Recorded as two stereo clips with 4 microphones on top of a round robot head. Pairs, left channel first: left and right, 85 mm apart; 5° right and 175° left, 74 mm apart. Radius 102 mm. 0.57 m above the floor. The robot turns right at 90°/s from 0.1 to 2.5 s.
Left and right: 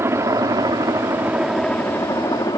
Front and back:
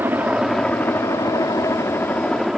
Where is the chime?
I don't hear a chime.